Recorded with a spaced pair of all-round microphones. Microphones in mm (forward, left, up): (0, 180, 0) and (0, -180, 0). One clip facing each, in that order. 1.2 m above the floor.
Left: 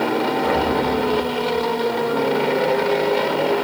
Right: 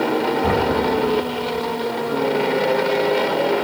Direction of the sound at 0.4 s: 60° right (ahead or behind).